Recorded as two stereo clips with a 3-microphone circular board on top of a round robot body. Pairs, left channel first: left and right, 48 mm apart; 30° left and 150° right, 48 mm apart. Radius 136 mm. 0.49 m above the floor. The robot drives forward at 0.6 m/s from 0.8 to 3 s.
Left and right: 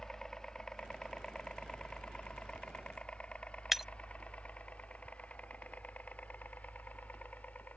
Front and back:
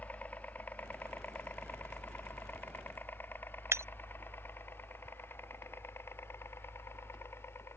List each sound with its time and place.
0.0 s a helicopter: 20° left; by 7.8 s 40° left
3.7 s breaking glass: 175° right